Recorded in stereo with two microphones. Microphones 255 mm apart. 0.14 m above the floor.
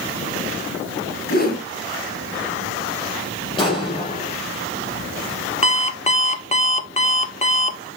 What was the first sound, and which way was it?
A whoosh, 35° left (ahead or behind).